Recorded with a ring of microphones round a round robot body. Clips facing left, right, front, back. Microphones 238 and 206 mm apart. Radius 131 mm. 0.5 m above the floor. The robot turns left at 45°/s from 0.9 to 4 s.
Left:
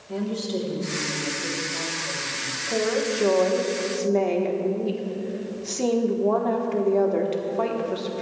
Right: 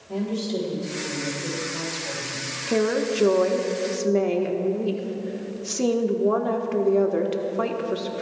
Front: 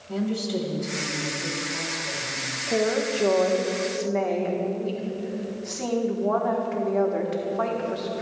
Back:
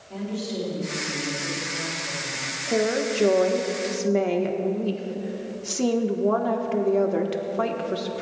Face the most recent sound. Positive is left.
turn(degrees=-155)